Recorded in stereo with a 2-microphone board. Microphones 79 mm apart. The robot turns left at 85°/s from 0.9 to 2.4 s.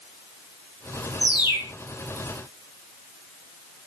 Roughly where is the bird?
Left.